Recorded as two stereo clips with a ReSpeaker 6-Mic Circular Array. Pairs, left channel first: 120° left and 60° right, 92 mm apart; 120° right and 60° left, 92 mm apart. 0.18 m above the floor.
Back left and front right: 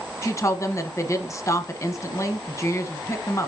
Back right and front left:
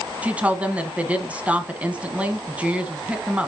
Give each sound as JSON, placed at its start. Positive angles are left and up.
{"t": 0.2, "sound": "a woman speaking", "azimuth_deg": 120, "distance_m": 1.3}